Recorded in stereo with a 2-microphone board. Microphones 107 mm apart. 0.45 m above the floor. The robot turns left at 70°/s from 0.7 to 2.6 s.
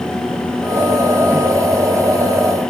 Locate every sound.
Only background noise.